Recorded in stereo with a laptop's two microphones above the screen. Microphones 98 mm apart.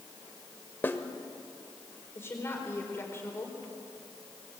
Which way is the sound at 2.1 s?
25° left (ahead or behind).